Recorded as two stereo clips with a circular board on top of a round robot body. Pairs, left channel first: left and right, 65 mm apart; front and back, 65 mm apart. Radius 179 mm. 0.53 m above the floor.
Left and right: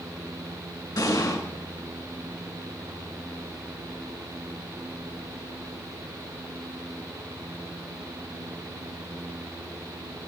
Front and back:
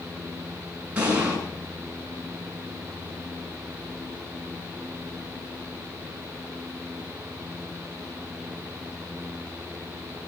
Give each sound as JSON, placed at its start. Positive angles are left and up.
{"t": 1.0, "sound": "an explosion", "azimuth_deg": 110, "distance_m": 7.0}